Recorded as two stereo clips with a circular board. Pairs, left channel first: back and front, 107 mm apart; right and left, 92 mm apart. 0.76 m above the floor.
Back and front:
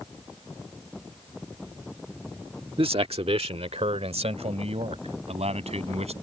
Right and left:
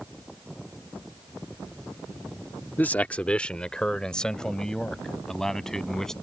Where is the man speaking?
25° right; by 6.1 s 5° right.